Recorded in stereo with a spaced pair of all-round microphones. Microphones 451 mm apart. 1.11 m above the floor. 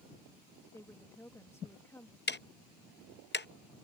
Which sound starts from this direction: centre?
A woman speaking, at 0.7 s.